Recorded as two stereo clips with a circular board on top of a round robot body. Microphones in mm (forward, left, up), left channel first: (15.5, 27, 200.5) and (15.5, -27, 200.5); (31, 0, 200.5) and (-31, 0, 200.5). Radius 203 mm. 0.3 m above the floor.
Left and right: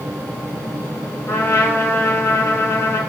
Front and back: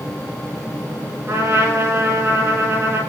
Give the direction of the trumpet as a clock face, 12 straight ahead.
8 o'clock.